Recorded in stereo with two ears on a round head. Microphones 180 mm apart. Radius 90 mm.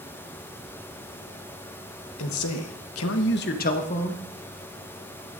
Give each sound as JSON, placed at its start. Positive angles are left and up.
{"t": 2.2, "sound": "a man speaking", "side_deg": 75, "distance_m": 1.2}